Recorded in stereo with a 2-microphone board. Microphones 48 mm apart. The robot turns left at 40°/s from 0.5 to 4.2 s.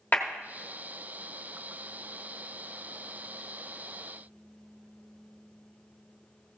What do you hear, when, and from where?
0.1 s a clap: 35° left (ahead or behind), 1.1 m